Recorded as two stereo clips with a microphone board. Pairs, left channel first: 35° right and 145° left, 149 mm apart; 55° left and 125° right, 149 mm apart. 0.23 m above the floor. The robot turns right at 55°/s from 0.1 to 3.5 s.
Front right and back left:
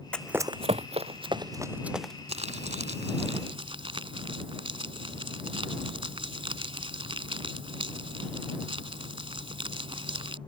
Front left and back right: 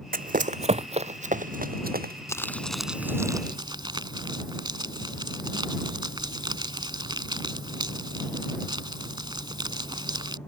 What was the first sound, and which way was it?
Running footsteps, 115° right.